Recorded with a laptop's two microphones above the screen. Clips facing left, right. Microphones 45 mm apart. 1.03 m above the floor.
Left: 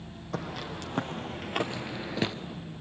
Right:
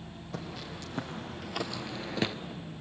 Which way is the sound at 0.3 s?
65° left (ahead or behind).